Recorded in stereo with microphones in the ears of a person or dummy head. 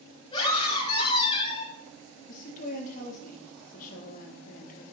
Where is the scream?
25° left (ahead or behind), 6 m.